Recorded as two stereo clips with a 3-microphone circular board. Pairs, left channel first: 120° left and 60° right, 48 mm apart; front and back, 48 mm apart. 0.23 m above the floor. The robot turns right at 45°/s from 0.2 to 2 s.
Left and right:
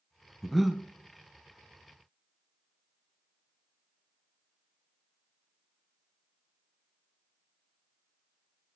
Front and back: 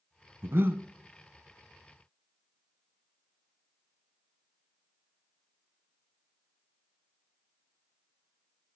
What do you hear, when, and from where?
0.4 s breathing: 155° right, 0.5 m; by 0.8 s 135° right, 0.5 m